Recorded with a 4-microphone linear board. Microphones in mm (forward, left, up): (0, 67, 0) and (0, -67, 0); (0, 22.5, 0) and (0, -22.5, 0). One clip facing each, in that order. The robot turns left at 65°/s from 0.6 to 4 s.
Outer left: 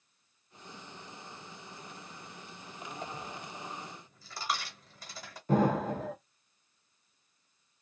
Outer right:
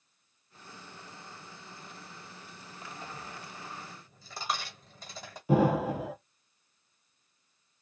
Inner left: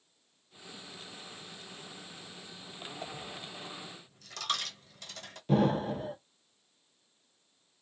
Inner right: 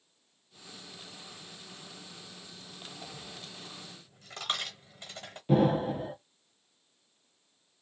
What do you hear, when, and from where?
3.0 s a dropped coin: 45° left (ahead or behind), 1.1 m; by 5.4 s 20° right (ahead or behind), 1.1 m
5.5 s an explosion: 10° right (ahead or behind), 0.8 m